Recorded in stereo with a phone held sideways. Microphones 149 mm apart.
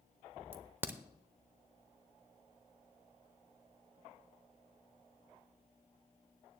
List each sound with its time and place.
0.5 s a crack: 15° right (ahead or behind), 0.7 m